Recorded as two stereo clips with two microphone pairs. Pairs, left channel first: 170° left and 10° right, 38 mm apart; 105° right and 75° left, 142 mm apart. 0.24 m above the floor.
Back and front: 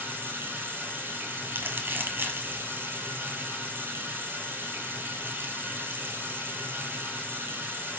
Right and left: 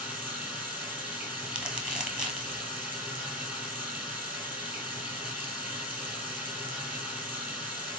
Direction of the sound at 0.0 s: 5° right.